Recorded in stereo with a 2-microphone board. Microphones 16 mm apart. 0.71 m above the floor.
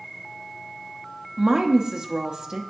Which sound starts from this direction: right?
A woman speaking, at 1.4 s.